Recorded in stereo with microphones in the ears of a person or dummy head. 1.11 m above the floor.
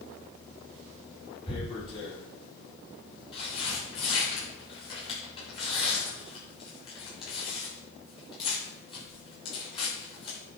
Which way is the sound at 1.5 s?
30° left (ahead or behind).